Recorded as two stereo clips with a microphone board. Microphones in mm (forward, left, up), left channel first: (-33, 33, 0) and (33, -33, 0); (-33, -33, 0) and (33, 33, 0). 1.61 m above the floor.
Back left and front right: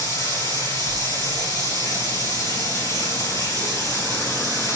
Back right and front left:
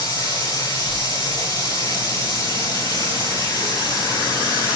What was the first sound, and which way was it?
Running water, 170° right.